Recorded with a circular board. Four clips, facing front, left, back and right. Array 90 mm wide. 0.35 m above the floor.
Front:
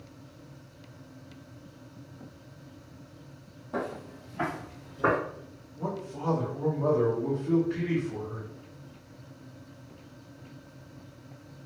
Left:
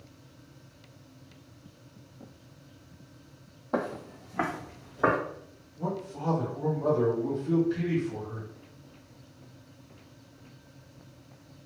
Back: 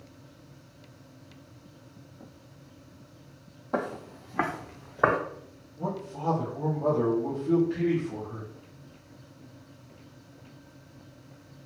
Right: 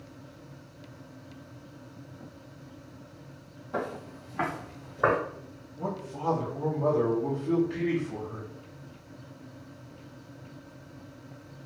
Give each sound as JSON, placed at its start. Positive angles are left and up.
{"t": 3.7, "sound": "footsteps", "azimuth_deg": 130, "distance_m": 0.6}
{"t": 5.8, "sound": "a man speaking", "azimuth_deg": -75, "distance_m": 1.5}